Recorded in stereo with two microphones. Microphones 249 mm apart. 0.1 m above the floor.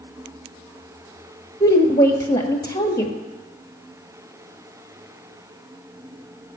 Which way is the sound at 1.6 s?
15° left (ahead or behind).